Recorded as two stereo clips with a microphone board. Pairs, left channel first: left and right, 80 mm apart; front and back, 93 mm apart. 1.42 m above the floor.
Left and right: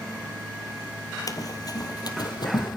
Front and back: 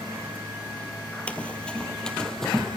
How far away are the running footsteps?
About 2 m.